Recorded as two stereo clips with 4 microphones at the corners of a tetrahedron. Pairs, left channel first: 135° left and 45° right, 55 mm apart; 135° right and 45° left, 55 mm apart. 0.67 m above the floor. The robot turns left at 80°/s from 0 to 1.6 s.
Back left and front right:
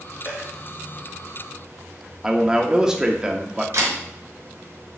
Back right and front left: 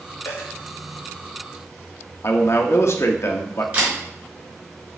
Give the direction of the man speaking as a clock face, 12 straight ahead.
4 o'clock.